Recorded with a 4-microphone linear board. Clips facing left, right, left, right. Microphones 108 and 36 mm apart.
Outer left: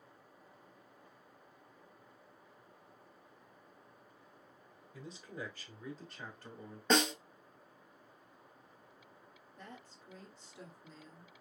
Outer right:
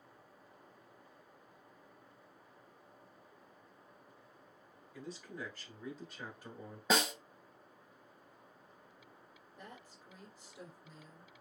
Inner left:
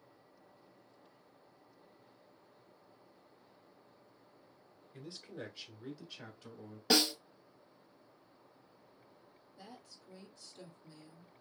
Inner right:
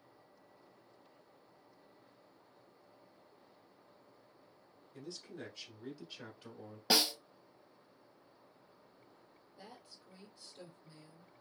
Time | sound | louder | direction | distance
4.9 | a man speaking | even, inner left 1 dB | 30° left (ahead or behind) | 1.3 m
6.9 | a snare drum | outer left 2 dB, inner left 1 dB | 5° right (ahead or behind) | 0.7 m
9.6 | a woman speaking | outer left 1 dB, inner left 1 dB | 10° right (ahead or behind) | 2.0 m